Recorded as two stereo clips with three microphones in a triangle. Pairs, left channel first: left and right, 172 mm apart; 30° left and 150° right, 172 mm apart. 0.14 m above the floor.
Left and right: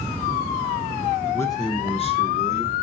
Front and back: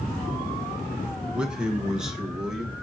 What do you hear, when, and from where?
1.3 s a man speaking: 135° left, 1.1 m; by 2.7 s 125° left, 2 m